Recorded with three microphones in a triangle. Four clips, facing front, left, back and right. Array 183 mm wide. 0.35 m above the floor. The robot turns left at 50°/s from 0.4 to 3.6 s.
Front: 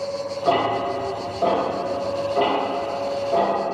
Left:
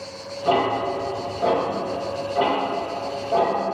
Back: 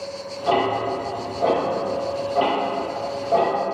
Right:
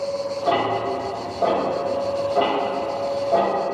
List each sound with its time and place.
0.5 s ticking: 20° right, 1.1 m; by 3.5 s 170° right, 1.1 m